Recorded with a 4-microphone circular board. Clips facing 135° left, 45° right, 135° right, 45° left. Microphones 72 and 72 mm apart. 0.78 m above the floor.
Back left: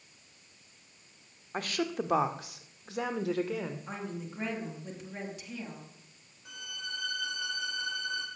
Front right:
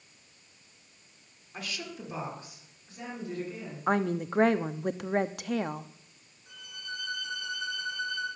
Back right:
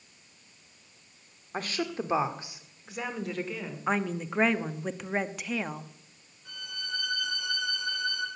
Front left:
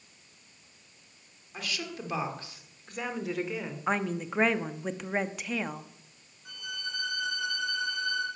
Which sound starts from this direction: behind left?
A violin, at 6.5 s.